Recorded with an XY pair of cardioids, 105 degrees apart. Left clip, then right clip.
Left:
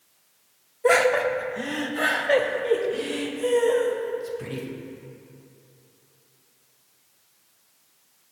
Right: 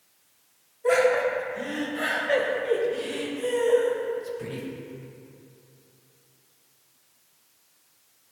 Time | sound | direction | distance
0.8 | laughter | 55° left | 1.2 m